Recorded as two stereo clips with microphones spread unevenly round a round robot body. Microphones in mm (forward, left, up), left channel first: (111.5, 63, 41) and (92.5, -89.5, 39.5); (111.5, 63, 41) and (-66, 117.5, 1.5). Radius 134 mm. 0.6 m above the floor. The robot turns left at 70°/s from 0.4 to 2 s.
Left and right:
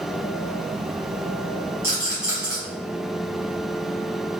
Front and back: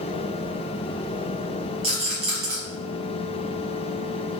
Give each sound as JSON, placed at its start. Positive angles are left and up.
{"t": 1.8, "sound": "a rattle", "azimuth_deg": -165, "distance_m": 1.2}